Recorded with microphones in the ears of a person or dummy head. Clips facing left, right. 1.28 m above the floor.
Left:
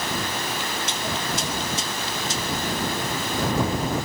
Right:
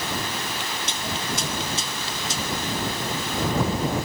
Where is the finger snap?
No finger snap in this recording.